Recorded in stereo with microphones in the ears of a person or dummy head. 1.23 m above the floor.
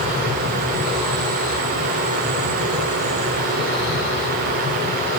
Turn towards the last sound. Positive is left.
No sound to turn to.